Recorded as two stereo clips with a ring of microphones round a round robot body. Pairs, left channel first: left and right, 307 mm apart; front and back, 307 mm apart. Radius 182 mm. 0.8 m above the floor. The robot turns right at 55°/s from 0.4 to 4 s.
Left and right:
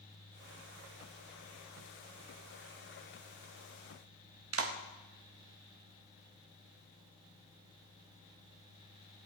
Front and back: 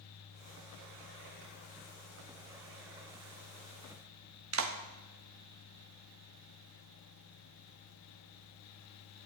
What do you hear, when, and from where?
4.5 s a clap: 135° right, 1.8 m